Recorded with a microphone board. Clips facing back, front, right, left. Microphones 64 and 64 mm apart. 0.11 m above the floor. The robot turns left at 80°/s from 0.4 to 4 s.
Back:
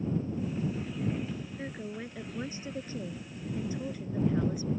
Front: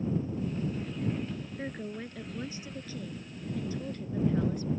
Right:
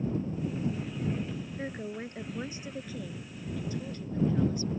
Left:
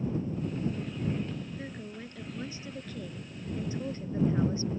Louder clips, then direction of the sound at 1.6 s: Front 1 dB, right 4 dB; 65° right.